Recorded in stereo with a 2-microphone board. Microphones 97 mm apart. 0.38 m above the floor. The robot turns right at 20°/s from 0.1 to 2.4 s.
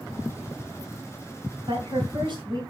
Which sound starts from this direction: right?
A woman speaking, at 1.7 s.